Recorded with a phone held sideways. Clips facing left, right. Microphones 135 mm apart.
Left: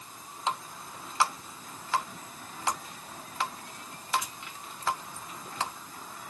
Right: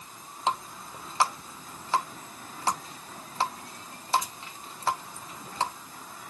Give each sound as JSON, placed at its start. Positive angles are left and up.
{"t": 0.5, "sound": "a running tap", "side_deg": -35, "distance_m": 0.9}